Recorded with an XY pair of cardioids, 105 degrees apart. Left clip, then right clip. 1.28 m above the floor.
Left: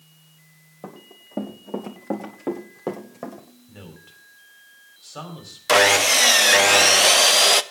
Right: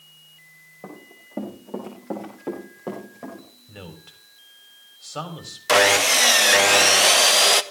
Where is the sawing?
15° left, 0.6 m.